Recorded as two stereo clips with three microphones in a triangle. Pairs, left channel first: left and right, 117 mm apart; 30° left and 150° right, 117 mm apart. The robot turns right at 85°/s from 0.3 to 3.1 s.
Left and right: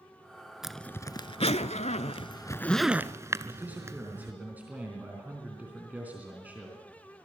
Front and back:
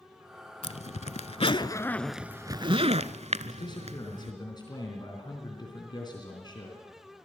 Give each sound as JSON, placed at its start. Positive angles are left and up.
{"t": 0.6, "sound": "a zipper", "azimuth_deg": -5, "distance_m": 0.7}
{"t": 3.5, "sound": "a man speaking", "azimuth_deg": -15, "distance_m": 3.5}